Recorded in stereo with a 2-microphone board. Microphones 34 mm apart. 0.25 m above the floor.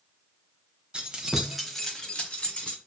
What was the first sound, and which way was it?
Keys jangling, 30° right (ahead or behind).